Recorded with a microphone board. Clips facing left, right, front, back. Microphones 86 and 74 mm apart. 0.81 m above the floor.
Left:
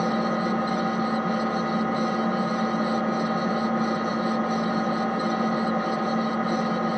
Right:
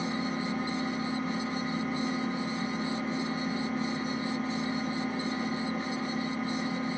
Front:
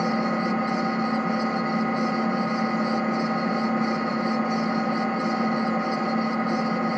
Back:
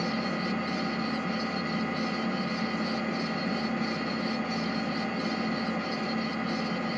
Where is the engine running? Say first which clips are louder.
Left 8 dB, front 7 dB; 60° left, 2.5 m.